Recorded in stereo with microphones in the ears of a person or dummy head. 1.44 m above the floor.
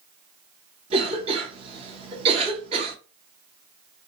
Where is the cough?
30° right (ahead or behind), 1.1 m.